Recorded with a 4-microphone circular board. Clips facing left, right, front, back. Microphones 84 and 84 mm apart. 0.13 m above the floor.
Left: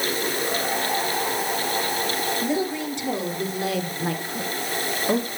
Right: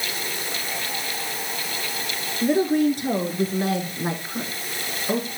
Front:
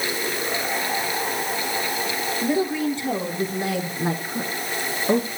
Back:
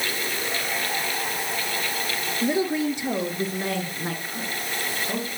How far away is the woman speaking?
About 3 m.